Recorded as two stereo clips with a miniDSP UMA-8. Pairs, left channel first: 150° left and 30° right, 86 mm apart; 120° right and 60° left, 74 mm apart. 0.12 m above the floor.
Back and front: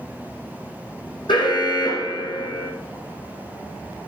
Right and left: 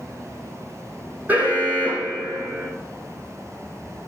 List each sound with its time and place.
1.3 s an alarm: 125° left, 3.5 m